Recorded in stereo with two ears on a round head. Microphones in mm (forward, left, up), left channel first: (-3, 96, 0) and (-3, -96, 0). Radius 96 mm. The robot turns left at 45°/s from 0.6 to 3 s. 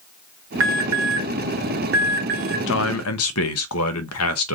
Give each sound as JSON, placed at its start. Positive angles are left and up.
{"t": 0.6, "sound": "an alarm", "side_deg": -60, "distance_m": 1.4}
{"t": 2.7, "sound": "a man speaking", "side_deg": 60, "distance_m": 0.8}